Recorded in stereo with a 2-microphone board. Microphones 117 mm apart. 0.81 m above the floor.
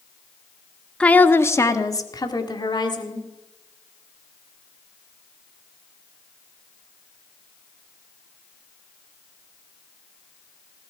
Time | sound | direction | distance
1.0 | a woman speaking | 10° left (ahead or behind) | 1.0 m